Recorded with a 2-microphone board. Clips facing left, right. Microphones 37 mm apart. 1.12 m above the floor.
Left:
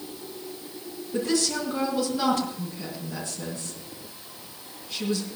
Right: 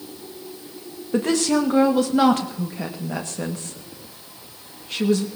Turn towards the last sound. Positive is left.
turn(degrees=-60)  # may be behind; listen again after turning